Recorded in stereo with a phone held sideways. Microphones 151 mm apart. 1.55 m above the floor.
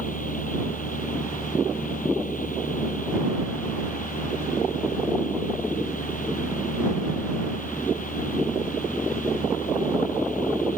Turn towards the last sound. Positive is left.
turn(degrees=70)  # may be behind; listen again after turning